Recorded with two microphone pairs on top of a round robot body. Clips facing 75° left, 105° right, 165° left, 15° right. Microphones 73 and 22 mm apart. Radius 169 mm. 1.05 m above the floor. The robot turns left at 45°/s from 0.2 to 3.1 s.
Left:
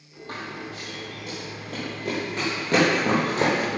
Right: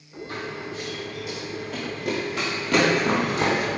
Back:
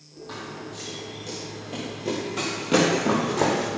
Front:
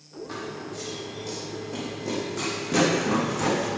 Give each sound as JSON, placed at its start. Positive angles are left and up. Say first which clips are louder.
{"t": 0.3, "sound": "running footsteps", "louder": "right 2 dB, front 1 dB", "azimuth_deg": 115, "distance_m": 1.6}